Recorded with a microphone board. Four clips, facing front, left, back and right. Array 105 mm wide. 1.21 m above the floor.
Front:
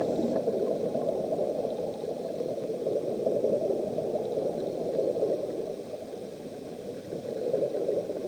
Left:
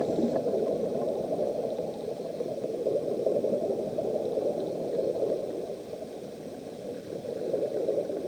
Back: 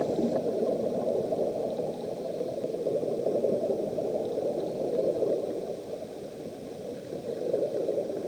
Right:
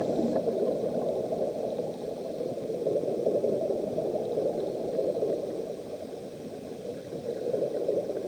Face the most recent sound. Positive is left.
No sound to turn to.